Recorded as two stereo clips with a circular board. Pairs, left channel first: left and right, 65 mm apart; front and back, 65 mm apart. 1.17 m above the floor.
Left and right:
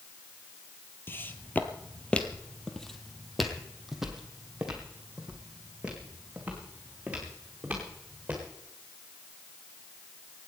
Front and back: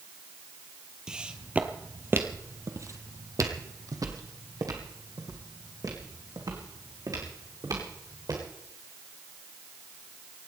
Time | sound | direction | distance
1.1 | footsteps | 105° left | 1.3 m